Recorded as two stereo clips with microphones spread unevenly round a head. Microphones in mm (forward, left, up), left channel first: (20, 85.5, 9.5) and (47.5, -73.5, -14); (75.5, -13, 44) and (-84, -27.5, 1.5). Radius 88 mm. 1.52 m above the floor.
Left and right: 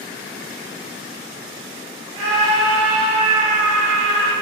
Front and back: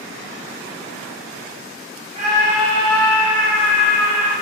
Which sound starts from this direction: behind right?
A scream, at 2.1 s.